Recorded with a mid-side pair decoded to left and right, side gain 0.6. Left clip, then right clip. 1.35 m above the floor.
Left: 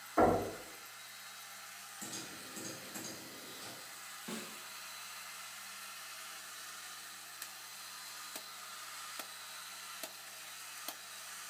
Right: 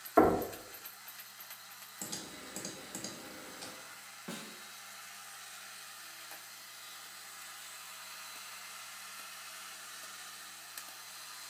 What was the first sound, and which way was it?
Knocking, 55° right.